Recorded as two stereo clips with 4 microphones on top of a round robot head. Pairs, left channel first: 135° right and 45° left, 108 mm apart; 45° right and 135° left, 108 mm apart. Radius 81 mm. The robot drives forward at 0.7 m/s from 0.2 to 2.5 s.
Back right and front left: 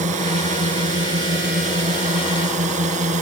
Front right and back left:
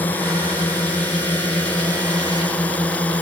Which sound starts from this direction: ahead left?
A drone, at 0.0 s.